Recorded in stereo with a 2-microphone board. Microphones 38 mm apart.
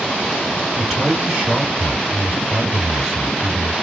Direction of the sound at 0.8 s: 15° right (ahead or behind).